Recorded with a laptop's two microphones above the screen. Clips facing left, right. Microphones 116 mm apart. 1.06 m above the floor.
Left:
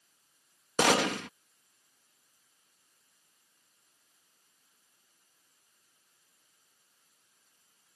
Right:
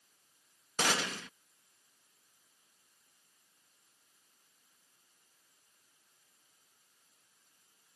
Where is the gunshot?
70° left (ahead or behind).